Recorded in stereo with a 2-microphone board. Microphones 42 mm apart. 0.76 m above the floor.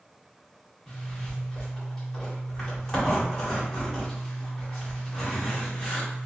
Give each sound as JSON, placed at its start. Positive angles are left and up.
{"t": 0.9, "sound": "a zipper", "side_deg": 15, "distance_m": 1.6}